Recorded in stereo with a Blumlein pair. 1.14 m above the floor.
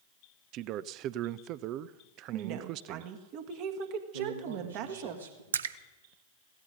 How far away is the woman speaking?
About 1.7 m.